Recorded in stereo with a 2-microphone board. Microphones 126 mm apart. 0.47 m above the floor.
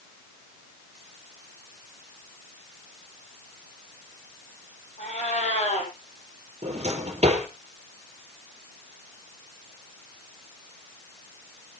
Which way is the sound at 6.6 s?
60° right (ahead or behind).